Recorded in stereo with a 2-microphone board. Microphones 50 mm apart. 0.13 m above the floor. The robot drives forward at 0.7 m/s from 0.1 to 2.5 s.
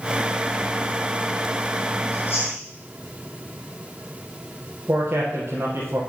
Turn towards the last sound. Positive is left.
turn(degrees=-60)  # may be behind; listen again after turning